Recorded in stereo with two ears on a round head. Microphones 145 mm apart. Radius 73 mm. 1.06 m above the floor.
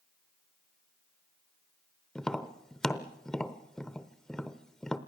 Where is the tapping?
5° left (ahead or behind), 0.8 m.